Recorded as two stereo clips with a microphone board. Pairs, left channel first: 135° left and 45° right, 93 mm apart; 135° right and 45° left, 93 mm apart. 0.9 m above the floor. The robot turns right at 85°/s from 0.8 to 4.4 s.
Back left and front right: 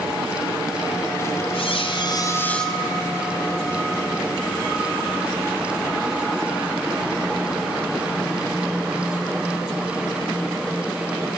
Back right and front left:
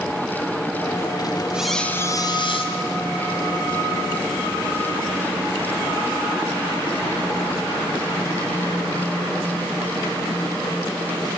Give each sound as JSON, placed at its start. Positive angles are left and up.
{"t": 1.5, "sound": "a squeak", "azimuth_deg": 125, "distance_m": 2.0}